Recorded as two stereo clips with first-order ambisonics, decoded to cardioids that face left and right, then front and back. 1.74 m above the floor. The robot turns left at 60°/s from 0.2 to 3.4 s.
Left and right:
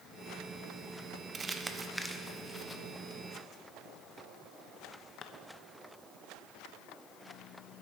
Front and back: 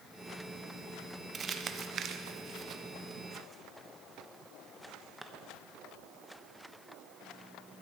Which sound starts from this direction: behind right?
Crumpling, at 1.3 s.